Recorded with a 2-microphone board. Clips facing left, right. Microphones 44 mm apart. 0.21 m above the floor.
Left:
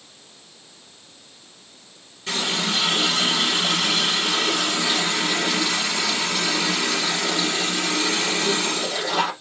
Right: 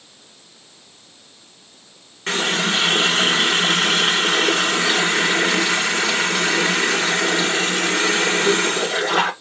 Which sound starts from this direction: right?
A running tap, at 2.3 s.